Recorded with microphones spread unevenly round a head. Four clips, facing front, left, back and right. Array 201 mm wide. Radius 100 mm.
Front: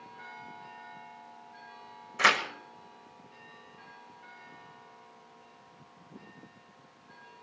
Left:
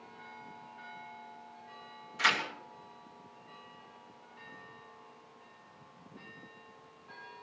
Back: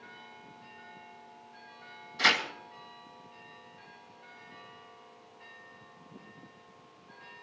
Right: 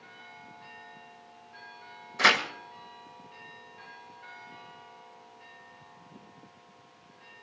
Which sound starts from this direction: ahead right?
Tearing paper, at 2.2 s.